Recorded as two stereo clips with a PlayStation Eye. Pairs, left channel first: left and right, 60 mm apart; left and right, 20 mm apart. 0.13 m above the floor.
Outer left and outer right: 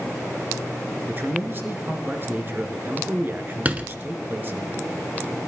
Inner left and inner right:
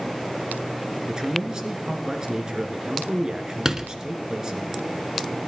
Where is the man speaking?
35° right (ahead or behind), 1.5 m.